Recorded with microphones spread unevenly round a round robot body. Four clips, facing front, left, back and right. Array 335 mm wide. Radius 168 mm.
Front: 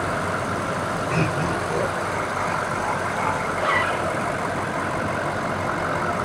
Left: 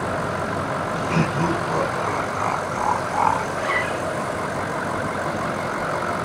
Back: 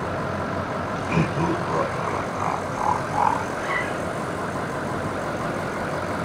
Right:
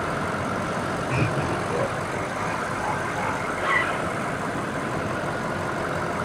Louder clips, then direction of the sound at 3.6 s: Left 1 dB, front 4 dB; 20° left.